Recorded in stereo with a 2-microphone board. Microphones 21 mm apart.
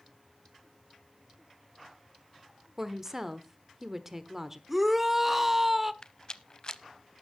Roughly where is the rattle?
Left.